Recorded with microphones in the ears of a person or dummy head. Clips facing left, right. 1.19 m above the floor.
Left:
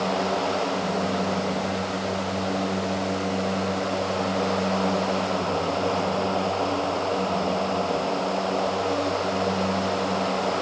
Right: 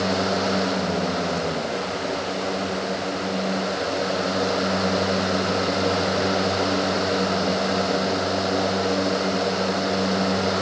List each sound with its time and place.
Only background noise.